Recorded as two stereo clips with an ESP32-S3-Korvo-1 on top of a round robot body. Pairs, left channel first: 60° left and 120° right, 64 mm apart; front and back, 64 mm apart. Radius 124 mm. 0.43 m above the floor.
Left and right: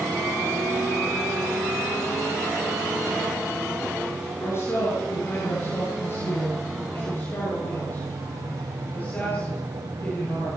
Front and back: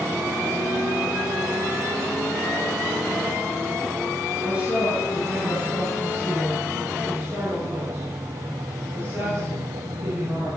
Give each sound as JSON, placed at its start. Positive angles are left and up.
{"t": 4.4, "sound": "a woman speaking", "azimuth_deg": 105, "distance_m": 8.5}